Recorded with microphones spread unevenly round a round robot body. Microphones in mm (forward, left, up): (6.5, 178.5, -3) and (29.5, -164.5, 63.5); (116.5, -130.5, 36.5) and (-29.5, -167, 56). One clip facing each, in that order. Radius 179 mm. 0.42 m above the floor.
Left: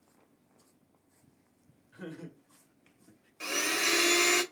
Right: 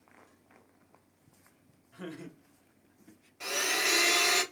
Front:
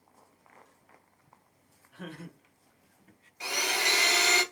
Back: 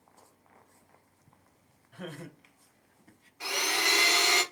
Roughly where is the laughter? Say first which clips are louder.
Right 1 dB, back 1 dB; behind.